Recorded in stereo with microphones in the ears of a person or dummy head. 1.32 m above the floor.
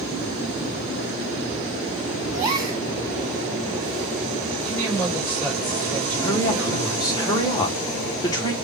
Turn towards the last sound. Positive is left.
turn(degrees=25)  # may be behind; listen again after turning